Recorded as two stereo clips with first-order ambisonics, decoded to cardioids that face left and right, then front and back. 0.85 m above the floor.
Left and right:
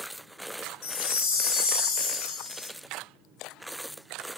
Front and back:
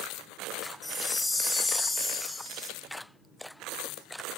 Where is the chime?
90° left, 1.7 m.